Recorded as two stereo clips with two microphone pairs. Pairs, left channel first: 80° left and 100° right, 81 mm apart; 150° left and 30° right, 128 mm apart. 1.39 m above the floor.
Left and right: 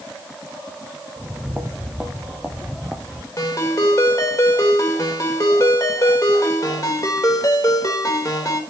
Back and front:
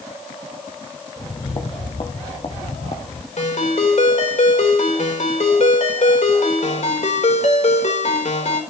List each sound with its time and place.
1.2 s footsteps: 170° right, 2 m; by 3.3 s 170° left, 3 m
3.4 s a ringtone: 125° left, 4 m